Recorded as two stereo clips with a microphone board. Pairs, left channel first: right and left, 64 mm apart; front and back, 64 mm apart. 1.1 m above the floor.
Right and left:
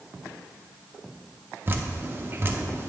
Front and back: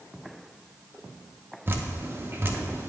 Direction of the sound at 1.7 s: 135° left.